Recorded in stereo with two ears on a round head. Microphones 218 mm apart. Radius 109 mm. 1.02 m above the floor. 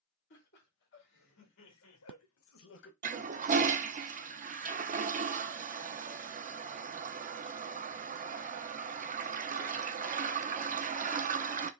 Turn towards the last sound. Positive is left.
turn(degrees=-35)  # may be behind; listen again after turning